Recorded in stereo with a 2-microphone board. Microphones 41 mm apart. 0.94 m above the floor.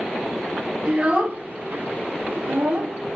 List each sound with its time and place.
0.8 s a child speaking: 30° right (ahead or behind), 0.9 m; by 3.0 s 75° right (ahead or behind), 1.4 m